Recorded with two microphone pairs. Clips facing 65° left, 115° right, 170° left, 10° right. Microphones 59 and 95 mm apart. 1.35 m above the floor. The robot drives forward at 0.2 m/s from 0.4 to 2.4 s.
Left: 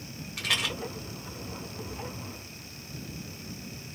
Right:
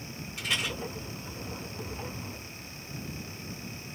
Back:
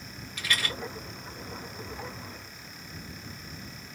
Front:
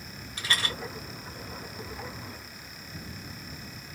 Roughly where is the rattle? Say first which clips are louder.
Left 2 dB, front 1 dB; ahead left.